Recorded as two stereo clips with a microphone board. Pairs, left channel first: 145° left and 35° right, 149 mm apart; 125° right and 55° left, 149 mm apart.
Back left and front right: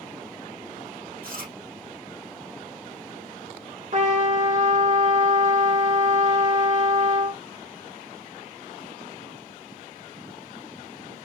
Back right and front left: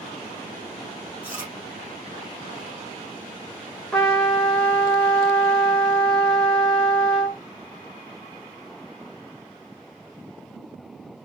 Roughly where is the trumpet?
Ahead right.